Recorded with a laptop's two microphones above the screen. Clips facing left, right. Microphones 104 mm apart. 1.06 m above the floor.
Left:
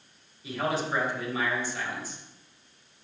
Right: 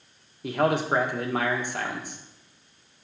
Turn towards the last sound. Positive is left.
turn(degrees=-60)  # may be behind; listen again after turning